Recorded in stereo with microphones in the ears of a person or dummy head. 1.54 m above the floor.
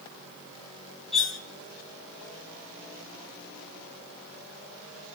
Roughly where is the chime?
No chime in this recording.